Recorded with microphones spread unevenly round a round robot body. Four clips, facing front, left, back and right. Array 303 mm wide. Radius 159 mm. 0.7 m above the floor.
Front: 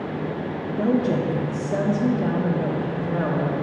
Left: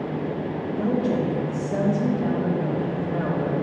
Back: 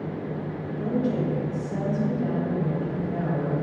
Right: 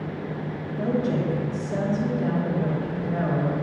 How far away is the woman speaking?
About 1.1 m.